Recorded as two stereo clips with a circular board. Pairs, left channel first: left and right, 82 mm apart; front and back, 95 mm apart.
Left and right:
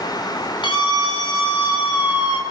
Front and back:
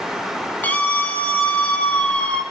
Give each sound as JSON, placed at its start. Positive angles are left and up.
{"t": 0.6, "sound": "a scream", "azimuth_deg": 70, "distance_m": 6.5}